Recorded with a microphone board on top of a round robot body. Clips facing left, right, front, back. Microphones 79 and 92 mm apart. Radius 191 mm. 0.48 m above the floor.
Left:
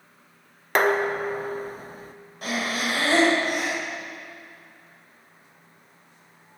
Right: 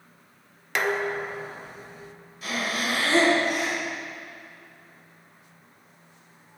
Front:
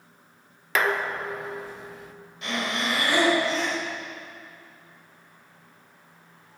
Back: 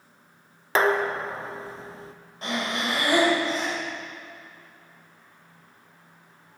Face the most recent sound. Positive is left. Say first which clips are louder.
# left 1 dB, even
turn(degrees=130)